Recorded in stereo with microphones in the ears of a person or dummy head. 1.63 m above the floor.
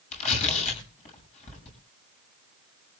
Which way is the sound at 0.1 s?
40° left (ahead or behind).